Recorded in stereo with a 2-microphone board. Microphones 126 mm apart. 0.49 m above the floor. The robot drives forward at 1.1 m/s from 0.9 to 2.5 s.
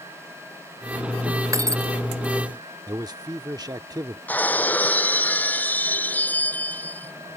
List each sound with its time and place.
1.5 s breaking glass: 25° right (ahead or behind)
2.9 s a man speaking: 30° right (ahead or behind)
4.3 s breaking glass: 15° left (ahead or behind)